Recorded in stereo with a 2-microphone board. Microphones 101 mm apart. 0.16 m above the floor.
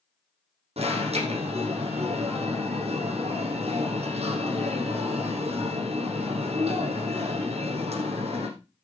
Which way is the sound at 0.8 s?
70° right (ahead or behind).